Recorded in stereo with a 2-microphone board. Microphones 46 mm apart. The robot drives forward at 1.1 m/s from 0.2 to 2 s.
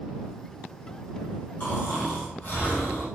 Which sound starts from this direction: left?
Snoring, at 1.6 s.